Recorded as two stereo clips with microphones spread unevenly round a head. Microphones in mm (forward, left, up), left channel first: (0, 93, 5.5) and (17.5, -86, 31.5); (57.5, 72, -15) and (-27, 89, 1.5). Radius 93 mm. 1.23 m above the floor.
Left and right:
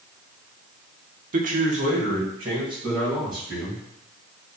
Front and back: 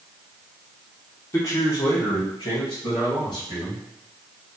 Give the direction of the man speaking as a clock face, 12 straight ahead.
2 o'clock.